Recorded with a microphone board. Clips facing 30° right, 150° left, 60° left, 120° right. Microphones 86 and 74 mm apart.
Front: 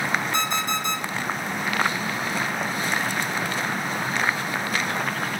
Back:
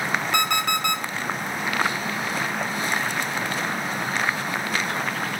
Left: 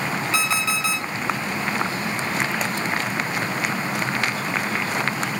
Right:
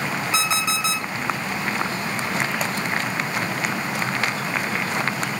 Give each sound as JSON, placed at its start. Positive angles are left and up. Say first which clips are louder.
{"t": 0.3, "sound": "an alarm clock", "louder": "back 2 dB, right 1 dB", "azimuth_deg": 170, "distance_m": 1.2}